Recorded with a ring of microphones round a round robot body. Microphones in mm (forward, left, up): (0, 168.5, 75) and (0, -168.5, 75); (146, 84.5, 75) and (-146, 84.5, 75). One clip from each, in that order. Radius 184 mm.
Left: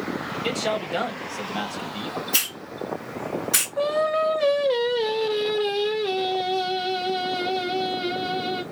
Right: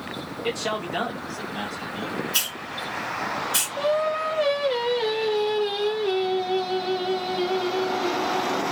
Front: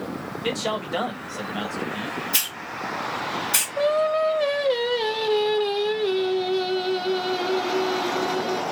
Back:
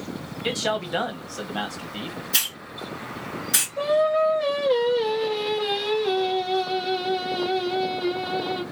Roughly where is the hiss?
Left.